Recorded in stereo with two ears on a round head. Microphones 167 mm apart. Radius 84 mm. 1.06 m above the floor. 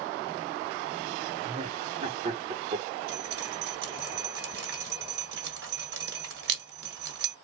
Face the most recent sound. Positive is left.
turn(degrees=-60)  # may be behind; listen again after turning